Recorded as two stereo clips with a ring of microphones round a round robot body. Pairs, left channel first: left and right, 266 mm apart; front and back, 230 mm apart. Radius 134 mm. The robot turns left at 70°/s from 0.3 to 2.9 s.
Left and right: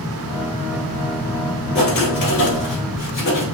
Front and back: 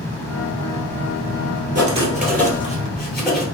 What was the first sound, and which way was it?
Writing, 130° left.